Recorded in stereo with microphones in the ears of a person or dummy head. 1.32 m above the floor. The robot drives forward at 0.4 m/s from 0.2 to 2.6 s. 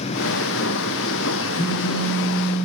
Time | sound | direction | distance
1.6 | a phone buzzing | 25° left (ahead or behind) | 2 m